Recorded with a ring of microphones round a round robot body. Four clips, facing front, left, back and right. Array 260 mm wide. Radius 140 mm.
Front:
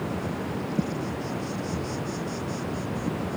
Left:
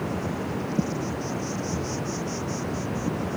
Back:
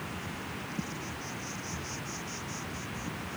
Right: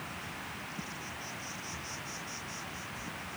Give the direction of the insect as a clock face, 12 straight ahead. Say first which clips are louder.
Left 14 dB, front 10 dB; 10 o'clock.